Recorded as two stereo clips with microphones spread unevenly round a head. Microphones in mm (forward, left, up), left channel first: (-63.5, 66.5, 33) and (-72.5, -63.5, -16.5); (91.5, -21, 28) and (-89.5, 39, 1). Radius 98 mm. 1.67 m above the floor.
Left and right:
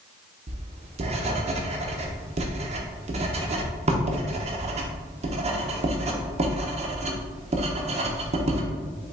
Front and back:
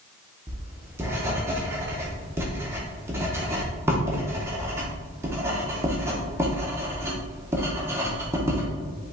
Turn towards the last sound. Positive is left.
turn(degrees=-120)